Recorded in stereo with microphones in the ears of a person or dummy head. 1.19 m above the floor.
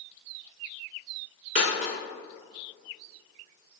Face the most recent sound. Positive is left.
turn(degrees=-40)  # may be behind; listen again after turning